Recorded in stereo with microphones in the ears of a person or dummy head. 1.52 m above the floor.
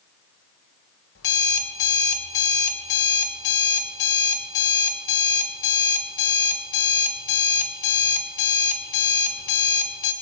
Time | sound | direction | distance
1.1 | an alarm clock | 70° left (ahead or behind) | 3 m